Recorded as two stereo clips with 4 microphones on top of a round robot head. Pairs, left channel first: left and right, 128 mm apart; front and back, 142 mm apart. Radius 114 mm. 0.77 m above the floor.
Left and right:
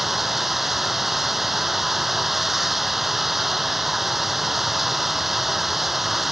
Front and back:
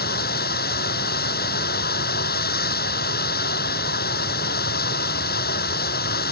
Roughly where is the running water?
Ahead.